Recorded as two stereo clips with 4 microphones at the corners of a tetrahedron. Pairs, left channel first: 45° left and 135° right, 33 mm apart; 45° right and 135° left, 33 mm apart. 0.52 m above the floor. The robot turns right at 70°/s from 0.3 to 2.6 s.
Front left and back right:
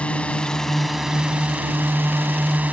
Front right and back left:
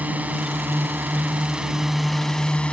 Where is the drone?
100° left; by 2.7 s 100° right.